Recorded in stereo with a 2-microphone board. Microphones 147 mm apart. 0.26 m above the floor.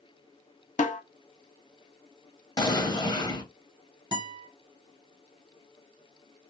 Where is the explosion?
30° left (ahead or behind), 0.6 m.